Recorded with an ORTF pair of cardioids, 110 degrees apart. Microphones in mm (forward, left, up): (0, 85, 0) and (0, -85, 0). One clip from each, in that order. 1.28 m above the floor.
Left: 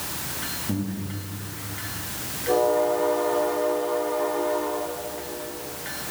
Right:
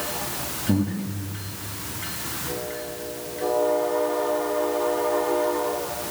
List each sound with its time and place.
0.7 s breathing: 30° right, 3 m